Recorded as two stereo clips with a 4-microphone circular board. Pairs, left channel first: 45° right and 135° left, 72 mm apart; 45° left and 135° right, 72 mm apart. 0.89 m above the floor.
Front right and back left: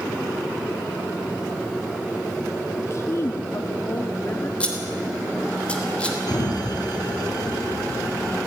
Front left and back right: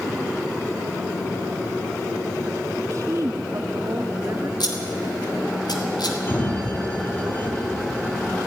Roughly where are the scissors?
Ahead left.